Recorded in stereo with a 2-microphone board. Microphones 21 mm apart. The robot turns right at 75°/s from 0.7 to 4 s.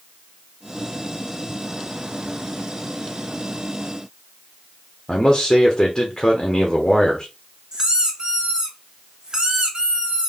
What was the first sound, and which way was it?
A man speaking, 20° left (ahead or behind).